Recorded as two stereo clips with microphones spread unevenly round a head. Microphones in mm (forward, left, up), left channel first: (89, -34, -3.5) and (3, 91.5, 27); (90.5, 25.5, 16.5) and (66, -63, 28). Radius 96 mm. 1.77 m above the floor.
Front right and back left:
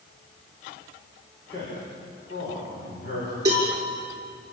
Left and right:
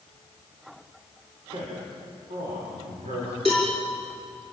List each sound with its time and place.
1.5 s a man speaking: 105° right, 7.5 m
3.5 s a cowbell: 165° right, 6.5 m